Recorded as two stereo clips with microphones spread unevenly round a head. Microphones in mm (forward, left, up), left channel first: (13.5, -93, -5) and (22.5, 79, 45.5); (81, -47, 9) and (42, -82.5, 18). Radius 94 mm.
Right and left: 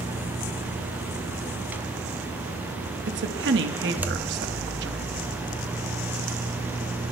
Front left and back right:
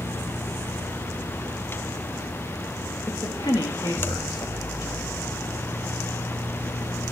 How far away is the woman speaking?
About 2 m.